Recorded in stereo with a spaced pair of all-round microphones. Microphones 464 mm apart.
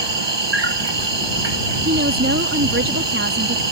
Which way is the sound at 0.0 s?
60° right (ahead or behind).